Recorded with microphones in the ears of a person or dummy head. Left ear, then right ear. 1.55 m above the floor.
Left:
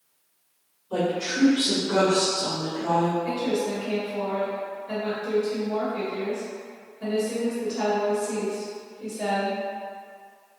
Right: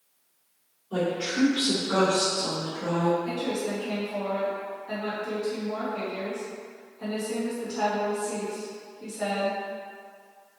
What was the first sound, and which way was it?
A woman speaking, 30° left (ahead or behind).